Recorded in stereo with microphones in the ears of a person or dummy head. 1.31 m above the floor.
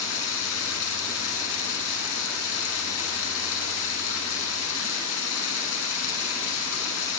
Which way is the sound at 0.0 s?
70° left (ahead or behind).